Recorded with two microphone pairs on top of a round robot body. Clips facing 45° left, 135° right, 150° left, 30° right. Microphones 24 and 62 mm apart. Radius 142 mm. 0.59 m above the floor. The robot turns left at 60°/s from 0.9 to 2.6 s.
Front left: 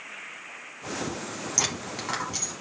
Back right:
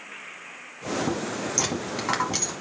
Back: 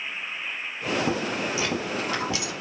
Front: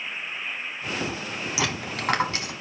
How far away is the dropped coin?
About 1.2 m.